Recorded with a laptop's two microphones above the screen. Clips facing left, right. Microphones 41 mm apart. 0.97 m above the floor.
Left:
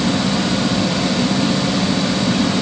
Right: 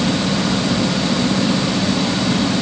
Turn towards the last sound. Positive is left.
No sound to turn to.